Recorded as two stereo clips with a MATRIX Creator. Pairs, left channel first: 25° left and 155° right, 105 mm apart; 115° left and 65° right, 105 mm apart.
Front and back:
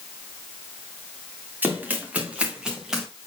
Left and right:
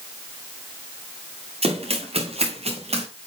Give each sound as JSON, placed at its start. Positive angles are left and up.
{"t": 1.6, "sound": "running footsteps", "azimuth_deg": -85, "distance_m": 4.0}